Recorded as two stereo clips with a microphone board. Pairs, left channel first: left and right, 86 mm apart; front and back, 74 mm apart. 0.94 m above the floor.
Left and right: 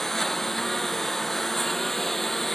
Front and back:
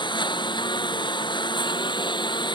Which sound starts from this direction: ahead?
A lawn mower, at 0.0 s.